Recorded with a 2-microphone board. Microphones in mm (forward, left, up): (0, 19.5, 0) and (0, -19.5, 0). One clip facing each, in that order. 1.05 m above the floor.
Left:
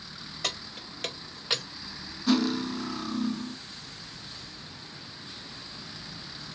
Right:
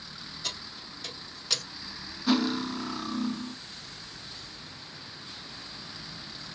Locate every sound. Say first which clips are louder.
0.4 s keys jangling: left 5 dB; 85° left, 1.8 m; by 1.6 s 10° left (ahead or behind), 0.6 m
2.3 s cutlery clinking: left 1 dB; 10° right (ahead or behind), 0.7 m